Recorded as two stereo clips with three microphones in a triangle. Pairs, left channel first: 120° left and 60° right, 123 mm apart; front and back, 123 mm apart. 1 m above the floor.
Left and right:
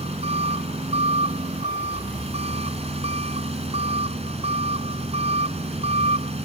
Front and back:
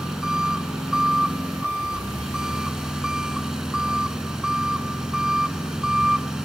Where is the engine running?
95° right.